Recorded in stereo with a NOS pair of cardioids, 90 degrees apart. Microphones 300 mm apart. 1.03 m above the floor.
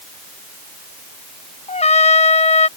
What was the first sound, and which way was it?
A trumpet, 20° left.